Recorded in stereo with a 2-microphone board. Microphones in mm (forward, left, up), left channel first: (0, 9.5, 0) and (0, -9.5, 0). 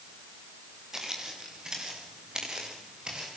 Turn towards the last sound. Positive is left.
turn(degrees=-35)  # may be behind; listen again after turning